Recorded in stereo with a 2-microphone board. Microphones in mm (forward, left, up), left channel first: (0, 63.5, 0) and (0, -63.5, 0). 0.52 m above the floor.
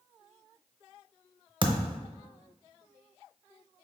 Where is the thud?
35° right (ahead or behind), 0.6 m.